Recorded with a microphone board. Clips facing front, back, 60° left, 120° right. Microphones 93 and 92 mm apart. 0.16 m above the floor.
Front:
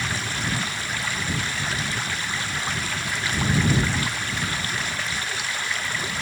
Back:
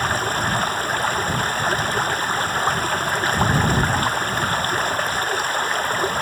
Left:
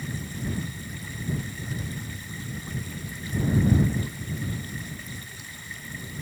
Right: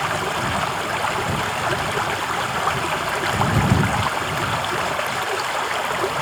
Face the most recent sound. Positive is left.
turn(degrees=-135)